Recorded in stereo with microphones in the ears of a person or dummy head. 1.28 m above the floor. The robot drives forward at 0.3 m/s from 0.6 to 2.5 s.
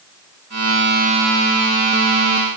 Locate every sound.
Only background noise.